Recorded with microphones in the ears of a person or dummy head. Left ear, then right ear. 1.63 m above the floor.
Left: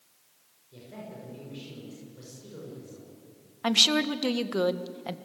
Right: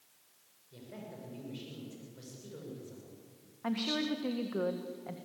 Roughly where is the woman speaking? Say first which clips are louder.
Left 12 dB; left.